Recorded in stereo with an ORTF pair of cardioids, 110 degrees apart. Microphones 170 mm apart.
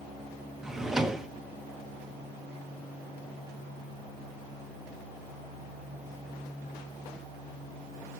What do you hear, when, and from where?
0.6 s a drawer: 5° right, 0.9 m